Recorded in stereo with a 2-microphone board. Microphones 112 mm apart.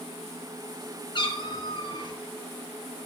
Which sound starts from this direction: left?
A cat meowing, at 1.1 s.